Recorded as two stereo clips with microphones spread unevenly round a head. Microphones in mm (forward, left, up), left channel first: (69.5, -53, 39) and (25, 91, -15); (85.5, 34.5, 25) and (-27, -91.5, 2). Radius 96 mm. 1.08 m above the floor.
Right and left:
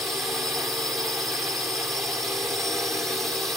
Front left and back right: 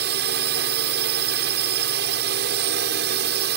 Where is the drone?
165° right.